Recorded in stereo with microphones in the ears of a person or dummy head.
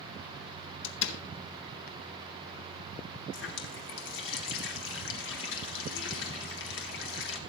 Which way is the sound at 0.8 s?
70° left (ahead or behind).